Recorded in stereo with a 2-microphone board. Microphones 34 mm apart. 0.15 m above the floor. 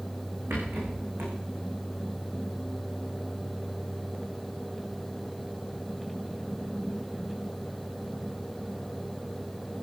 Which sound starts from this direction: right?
A rattle, at 0.5 s.